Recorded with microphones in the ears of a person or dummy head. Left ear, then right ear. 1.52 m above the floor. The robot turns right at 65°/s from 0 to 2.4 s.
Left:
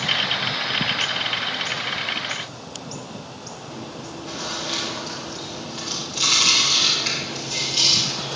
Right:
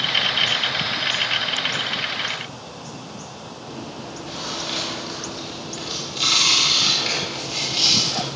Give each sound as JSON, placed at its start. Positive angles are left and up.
{"t": 3.6, "sound": "chewing", "side_deg": 5, "distance_m": 3.5}